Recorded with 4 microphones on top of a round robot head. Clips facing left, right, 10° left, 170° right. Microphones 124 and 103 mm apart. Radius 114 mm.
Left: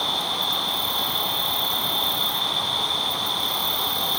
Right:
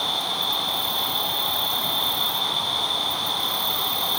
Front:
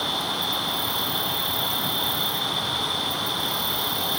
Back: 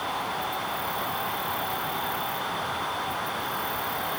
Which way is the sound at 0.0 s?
Straight ahead.